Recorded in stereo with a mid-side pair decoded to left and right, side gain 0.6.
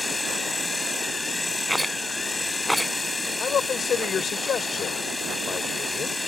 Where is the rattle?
Straight ahead.